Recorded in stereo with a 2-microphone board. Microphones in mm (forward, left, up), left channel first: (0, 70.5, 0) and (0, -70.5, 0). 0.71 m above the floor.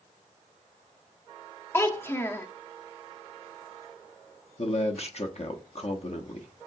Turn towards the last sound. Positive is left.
turn(degrees=55)  # may be behind; listen again after turning